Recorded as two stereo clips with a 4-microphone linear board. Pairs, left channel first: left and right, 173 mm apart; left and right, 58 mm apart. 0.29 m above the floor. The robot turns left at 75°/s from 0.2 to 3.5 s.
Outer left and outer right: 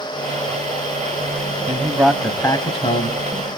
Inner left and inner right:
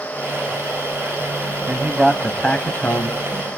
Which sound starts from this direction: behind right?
A man speaking, at 1.7 s.